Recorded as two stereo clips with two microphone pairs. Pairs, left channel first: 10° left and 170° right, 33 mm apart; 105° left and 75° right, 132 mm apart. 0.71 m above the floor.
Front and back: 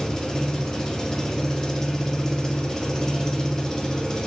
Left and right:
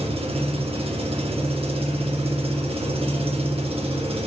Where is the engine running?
55° right, 1.1 m.